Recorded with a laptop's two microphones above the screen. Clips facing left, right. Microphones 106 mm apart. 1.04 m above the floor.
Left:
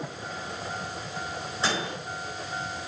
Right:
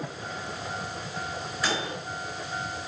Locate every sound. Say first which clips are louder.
1.6 s a microwave: left 1 dB; 25° left (ahead or behind), 4 m